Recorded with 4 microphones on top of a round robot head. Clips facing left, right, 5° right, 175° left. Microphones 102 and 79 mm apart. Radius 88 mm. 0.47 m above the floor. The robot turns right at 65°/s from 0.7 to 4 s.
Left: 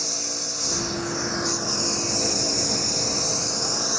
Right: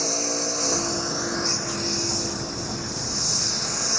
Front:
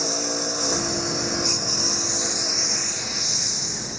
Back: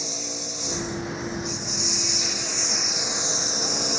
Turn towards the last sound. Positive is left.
turn(degrees=170)